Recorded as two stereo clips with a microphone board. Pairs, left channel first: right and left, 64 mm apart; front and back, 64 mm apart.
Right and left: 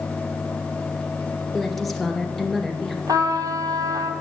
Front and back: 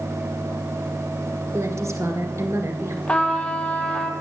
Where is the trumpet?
75° left, 1.5 m.